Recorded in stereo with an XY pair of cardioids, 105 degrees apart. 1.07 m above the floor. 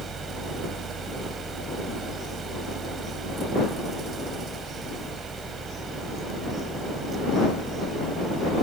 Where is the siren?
No siren in this recording.